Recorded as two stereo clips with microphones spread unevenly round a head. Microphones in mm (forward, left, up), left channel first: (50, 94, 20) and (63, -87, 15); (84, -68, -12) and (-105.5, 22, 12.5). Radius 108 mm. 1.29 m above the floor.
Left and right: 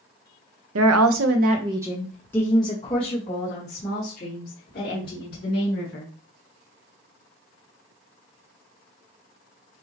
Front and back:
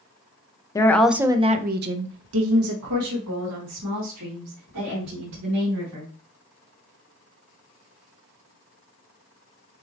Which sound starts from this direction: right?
A woman speaking, at 0.8 s.